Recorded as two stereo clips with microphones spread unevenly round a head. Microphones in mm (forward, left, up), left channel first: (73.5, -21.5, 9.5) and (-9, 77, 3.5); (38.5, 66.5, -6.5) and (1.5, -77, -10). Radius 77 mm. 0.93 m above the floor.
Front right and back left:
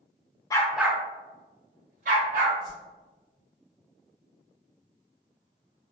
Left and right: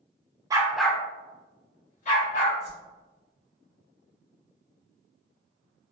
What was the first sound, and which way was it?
A dog barking, 65° right.